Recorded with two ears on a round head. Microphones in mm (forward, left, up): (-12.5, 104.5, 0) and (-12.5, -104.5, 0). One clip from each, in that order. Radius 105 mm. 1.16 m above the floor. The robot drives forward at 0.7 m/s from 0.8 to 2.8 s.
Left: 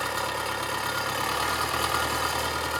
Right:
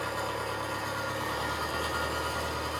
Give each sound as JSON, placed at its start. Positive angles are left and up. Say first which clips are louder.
{"t": 0.0, "sound": "an engine running", "louder": "left 4 dB", "side_deg": 50, "distance_m": 1.3}